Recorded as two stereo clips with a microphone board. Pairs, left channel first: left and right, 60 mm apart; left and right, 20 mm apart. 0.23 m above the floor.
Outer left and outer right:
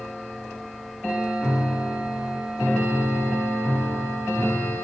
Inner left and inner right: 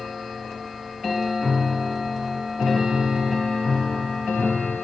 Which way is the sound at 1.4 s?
10° left (ahead or behind).